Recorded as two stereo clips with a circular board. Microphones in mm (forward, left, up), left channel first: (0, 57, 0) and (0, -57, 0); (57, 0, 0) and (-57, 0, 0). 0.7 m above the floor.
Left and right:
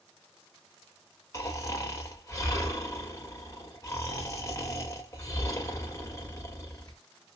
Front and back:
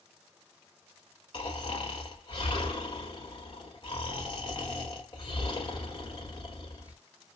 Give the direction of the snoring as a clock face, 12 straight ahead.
11 o'clock.